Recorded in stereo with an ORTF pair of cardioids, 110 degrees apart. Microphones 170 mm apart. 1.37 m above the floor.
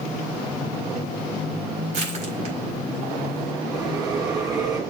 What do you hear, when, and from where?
1.9 s crushing: 45° right, 4.5 m
3.7 s a bell: 20° right, 5.5 m